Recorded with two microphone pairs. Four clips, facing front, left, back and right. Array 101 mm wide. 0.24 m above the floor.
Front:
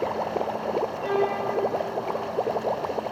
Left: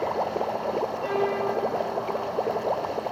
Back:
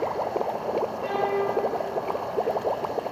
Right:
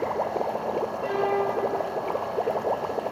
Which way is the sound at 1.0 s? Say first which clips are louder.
Right 2 dB, front 1 dB; 10° left.